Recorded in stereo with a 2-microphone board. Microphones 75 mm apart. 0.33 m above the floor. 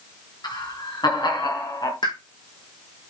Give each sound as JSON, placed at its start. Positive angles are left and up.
{"t": 0.4, "sound": "laughter", "side_deg": 75, "distance_m": 4.0}
{"t": 2.0, "sound": "a pop", "side_deg": 75, "distance_m": 3.5}